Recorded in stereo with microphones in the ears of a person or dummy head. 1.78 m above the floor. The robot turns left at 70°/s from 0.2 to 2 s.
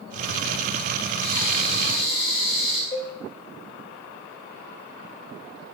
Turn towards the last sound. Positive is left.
turn(degrees=30)  # may be behind; listen again after turning